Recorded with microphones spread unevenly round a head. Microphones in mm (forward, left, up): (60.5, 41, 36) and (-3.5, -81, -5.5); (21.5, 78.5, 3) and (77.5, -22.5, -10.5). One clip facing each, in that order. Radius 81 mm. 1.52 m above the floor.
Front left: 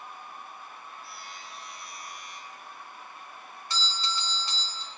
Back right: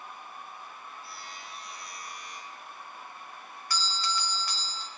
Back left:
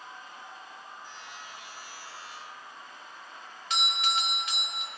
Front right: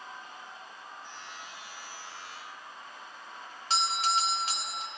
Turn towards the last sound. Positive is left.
turn(degrees=-10)